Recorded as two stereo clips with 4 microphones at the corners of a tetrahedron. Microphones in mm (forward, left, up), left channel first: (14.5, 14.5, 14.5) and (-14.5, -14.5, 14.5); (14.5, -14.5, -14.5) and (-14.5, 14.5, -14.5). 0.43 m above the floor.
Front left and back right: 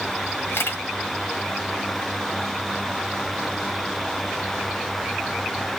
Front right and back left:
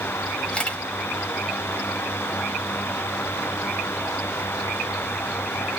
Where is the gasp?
No gasp in this recording.